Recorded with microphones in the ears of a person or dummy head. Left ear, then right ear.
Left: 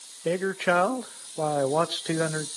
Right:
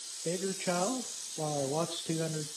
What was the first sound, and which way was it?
A man speaking, 50° left (ahead or behind).